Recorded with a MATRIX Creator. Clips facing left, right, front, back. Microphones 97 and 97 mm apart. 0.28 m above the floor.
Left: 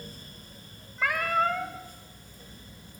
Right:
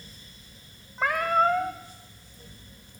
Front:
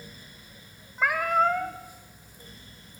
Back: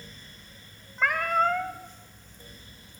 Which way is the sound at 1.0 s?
75° right.